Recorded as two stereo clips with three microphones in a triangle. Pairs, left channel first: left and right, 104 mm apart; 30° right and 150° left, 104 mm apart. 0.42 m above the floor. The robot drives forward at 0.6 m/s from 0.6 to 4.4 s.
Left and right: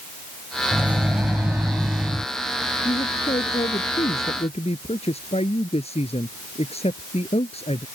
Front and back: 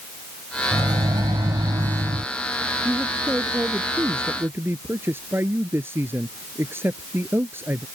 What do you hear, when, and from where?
0.7 s a microwave: 165° right; by 2.2 s 170° right
2.9 s a man speaking: 75° left; by 7.8 s 85° left